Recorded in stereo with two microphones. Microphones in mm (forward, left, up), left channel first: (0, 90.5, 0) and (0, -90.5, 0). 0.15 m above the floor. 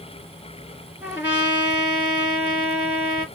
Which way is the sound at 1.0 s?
10° right (ahead or behind).